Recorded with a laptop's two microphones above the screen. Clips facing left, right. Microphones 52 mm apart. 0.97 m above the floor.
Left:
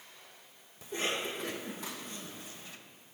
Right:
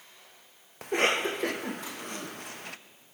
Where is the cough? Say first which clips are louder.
Right 9 dB; 70° right (ahead or behind), 0.6 m.